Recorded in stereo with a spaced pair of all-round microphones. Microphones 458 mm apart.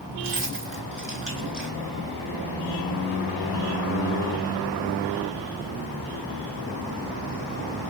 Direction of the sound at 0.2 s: 85° right.